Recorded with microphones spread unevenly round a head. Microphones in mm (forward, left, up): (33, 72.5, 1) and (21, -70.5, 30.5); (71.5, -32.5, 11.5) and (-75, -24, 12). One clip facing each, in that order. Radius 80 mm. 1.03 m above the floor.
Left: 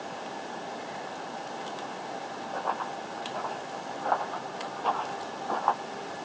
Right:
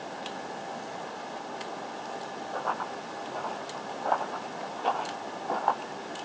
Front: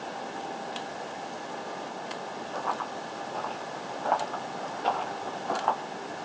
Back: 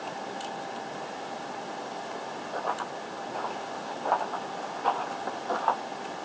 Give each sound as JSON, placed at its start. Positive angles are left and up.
{"t": 2.5, "sound": "running footsteps", "azimuth_deg": 175, "distance_m": 1.2}